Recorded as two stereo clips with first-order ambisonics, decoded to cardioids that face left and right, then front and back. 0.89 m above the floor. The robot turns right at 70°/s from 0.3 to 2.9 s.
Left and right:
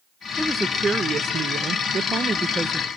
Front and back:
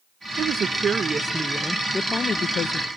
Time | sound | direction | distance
0.4 | a woman speaking | straight behind | 0.5 m